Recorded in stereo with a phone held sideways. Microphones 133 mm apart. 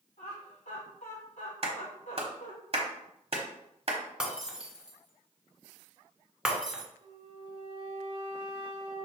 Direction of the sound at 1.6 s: 45° right (ahead or behind).